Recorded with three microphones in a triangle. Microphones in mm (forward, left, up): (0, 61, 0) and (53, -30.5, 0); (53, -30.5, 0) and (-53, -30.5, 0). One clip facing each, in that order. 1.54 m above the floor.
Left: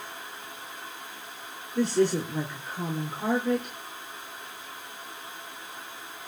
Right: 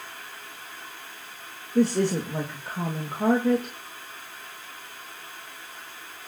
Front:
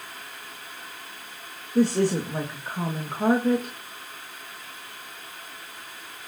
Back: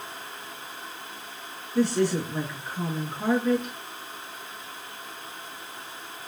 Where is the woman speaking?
45° right, 2.5 m.